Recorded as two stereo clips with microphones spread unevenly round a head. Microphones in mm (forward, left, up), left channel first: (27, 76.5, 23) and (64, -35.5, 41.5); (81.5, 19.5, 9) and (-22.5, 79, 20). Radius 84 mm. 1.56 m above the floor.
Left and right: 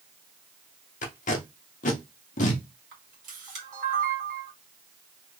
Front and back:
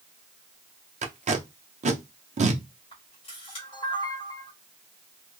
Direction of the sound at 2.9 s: 90° right.